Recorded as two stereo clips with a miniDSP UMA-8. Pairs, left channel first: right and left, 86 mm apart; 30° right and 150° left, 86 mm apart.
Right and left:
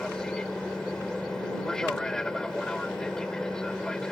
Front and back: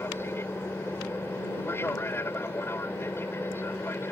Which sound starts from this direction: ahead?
An aircraft, at 0.0 s.